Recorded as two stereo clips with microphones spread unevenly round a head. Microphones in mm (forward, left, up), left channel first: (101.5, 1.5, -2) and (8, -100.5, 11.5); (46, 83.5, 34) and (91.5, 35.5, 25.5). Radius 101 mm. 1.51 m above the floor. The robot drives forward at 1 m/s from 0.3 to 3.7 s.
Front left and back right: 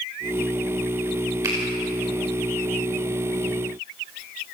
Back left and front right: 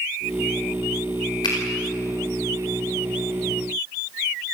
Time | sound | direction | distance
1.4 | a finger snap | 155° left | 4 m